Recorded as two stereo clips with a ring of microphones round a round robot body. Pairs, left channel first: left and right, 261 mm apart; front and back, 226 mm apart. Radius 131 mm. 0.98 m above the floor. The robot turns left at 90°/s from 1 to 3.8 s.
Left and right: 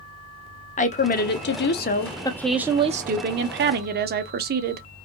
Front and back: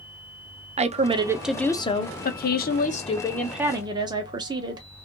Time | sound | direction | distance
0.8 | a woman speaking | 135° left | 0.7 m